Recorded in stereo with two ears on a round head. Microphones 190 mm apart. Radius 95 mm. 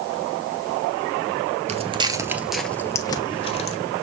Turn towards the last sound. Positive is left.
turn(degrees=30)  # may be behind; listen again after turning